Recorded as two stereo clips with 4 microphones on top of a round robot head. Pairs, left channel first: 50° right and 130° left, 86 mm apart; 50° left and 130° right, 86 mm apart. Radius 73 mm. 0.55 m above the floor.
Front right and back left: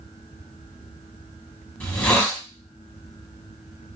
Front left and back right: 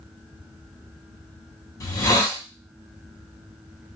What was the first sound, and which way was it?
A hiss, 15° left.